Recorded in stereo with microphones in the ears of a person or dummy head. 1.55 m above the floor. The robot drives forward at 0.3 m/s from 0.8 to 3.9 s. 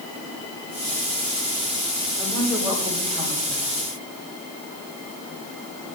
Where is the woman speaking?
10° left (ahead or behind), 2.5 m; by 3.7 s 5° left (ahead or behind), 3 m.